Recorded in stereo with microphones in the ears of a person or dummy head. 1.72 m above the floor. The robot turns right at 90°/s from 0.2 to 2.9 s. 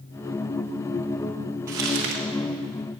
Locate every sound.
1.7 s crumpling: 155° right, 1.1 m; by 2.2 s 105° right, 1.1 m